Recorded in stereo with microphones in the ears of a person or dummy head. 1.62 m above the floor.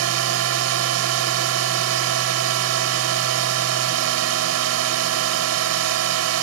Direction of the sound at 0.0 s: 75° right (ahead or behind).